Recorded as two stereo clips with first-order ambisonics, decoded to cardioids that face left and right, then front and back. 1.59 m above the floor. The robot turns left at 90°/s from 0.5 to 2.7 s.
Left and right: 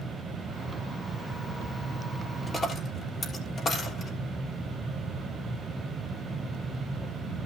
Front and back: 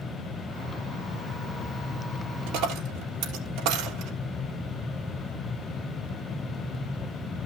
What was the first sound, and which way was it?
A dropped coin, 175° left.